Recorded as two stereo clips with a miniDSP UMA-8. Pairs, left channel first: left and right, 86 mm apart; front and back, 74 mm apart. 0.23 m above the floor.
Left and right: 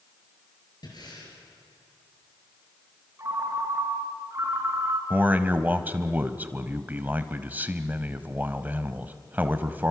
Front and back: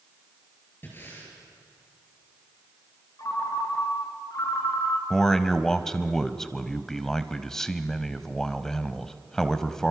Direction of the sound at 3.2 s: 35° right.